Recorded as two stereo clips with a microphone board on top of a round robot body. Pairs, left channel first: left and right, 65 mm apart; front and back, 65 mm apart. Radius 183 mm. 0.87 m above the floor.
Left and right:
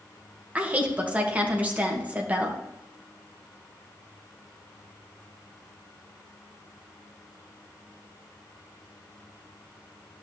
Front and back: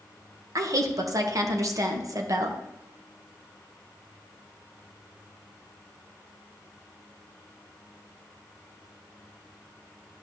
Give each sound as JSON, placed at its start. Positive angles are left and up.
{"t": 0.6, "sound": "a woman speaking", "azimuth_deg": -155, "distance_m": 1.6}